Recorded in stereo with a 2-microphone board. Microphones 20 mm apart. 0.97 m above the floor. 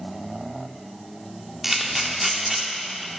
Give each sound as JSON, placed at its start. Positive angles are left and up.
{"t": 1.6, "sound": "a camera shutter", "side_deg": -10, "distance_m": 1.1}